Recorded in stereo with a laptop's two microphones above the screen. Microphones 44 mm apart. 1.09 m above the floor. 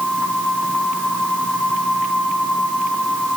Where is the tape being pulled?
I don't hear tape being pulled.